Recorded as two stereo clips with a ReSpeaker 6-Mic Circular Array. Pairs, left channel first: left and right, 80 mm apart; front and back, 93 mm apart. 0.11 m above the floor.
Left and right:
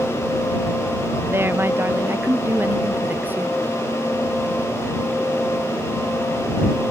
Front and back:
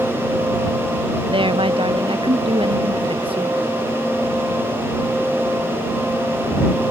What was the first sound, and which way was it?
A woman speaking, 150° right.